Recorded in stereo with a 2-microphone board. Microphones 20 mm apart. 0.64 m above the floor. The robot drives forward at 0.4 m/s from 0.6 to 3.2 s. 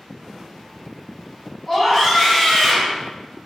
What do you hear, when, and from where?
1.7 s a scream: 5° right (ahead or behind), 1.3 m